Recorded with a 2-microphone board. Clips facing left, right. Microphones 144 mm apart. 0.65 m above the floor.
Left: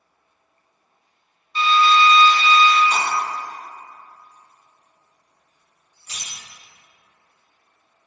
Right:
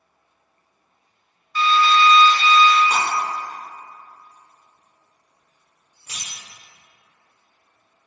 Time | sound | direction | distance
1.6 | a drill | 25° left (ahead or behind) | 0.6 m
2.9 | breaking glass | 65° right (ahead or behind) | 1.2 m